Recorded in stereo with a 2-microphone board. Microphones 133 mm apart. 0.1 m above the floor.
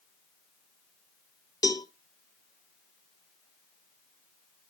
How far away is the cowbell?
About 0.9 m.